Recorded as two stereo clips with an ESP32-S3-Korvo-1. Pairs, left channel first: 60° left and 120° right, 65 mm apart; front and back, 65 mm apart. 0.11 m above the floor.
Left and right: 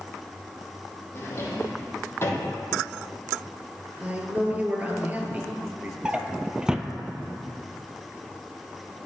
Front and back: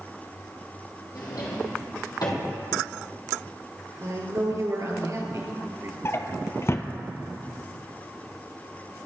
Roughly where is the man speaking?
Behind.